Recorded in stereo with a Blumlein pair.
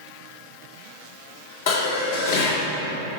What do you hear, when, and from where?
1.7 s dishes clattering: 55° left, 1.9 m